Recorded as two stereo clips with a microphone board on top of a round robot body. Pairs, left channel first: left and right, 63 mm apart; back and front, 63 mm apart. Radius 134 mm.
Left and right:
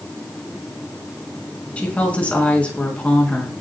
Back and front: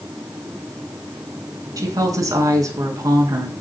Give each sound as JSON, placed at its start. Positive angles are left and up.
{"t": 1.8, "sound": "a woman speaking", "azimuth_deg": 20, "distance_m": 5.0}